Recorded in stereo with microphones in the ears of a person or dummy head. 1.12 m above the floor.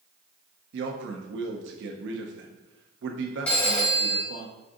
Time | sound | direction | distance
0.7 | a man speaking | 55° right (ahead or behind) | 0.5 m
3.5 | a phone ringing | 10° left (ahead or behind) | 1.5 m